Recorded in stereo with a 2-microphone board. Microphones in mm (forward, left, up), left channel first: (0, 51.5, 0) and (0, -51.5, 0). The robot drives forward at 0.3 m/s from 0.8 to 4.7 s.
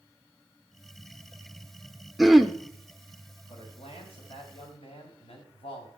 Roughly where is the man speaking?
Left.